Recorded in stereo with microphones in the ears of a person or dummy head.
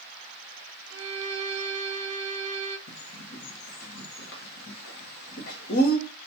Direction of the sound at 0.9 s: 75° right (ahead or behind).